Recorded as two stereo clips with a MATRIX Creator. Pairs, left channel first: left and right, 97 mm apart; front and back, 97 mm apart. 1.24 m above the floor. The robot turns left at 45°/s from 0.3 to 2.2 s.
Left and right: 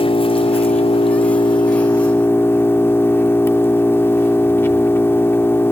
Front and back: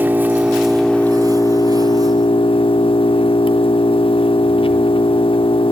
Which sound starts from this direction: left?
An engine running, at 0.0 s.